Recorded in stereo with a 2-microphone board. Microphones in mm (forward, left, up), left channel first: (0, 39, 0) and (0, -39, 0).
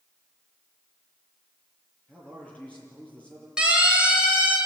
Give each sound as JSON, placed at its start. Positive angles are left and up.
{"t": 2.1, "sound": "a man speaking", "side_deg": 15, "distance_m": 8.5}
{"t": 3.6, "sound": "a siren", "side_deg": -15, "distance_m": 6.5}